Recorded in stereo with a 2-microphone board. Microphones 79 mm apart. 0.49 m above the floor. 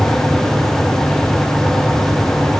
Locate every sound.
Only background noise.